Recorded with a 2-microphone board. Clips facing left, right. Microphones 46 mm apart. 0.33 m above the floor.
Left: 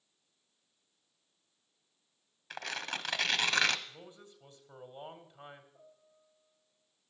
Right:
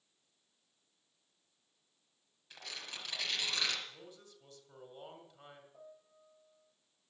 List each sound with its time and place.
2.5 s tearing paper: 65° left (ahead or behind), 1.0 m
3.9 s a man speaking: 20° left (ahead or behind), 1.8 m
5.7 s a piano: 45° right (ahead or behind), 5.5 m